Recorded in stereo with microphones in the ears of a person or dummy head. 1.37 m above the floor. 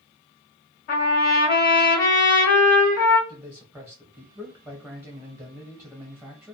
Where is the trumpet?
40° left (ahead or behind), 1.5 m.